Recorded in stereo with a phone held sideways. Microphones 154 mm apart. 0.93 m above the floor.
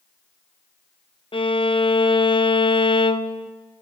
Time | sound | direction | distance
1.3 | a violin | 35° left (ahead or behind) | 0.6 m